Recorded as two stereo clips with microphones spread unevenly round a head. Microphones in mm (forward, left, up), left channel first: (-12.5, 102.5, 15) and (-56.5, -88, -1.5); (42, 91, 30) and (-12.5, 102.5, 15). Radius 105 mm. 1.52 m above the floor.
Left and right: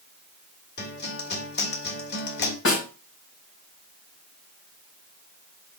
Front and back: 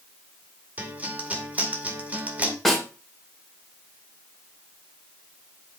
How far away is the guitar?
About 2 m.